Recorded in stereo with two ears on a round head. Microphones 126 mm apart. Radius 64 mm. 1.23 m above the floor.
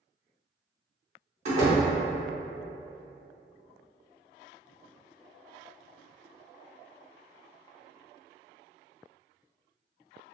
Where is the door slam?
55° right (ahead or behind), 1.3 m.